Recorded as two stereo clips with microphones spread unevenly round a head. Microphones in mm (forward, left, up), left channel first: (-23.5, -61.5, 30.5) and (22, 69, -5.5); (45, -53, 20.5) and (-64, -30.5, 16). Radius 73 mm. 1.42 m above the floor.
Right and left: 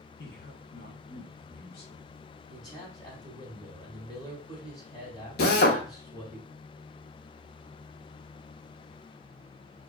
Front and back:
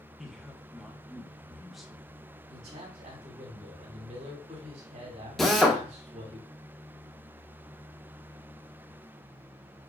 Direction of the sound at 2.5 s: 175° right.